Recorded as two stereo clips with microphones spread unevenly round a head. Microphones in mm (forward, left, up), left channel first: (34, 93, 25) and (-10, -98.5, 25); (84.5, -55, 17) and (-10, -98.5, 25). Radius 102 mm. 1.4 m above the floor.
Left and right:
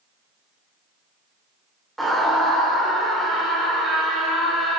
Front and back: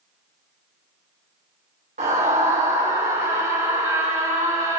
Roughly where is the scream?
Behind.